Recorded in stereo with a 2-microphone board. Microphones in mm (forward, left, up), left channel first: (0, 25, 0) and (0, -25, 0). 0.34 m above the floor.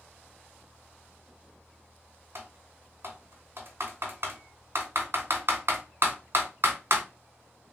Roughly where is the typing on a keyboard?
Right.